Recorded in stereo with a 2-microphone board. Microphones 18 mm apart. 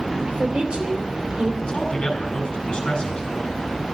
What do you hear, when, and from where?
0.2 s a woman speaking: 60° right (ahead or behind), 2.5 m
1.6 s a man speaking: 50° left (ahead or behind), 4.5 m